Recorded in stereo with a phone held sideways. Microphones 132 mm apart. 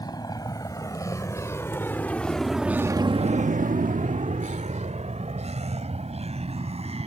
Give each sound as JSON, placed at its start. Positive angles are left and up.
{"t": 0.0, "sound": "a vehicle", "side_deg": 30}